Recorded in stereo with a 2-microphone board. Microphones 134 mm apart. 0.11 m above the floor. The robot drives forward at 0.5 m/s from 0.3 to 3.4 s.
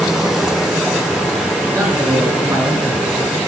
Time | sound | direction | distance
0.0 | running water | 5° right (ahead or behind) | 0.9 m
1.7 | a man speaking | 25° right (ahead or behind) | 1.6 m